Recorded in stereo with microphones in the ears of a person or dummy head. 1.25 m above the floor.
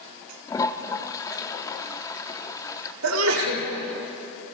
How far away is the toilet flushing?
About 0.9 m.